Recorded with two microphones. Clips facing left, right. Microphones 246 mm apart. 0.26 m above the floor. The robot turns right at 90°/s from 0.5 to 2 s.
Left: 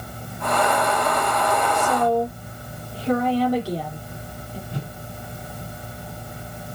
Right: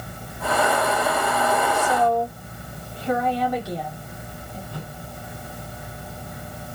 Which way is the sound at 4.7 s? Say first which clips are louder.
Left 5 dB; 20° left (ahead or behind).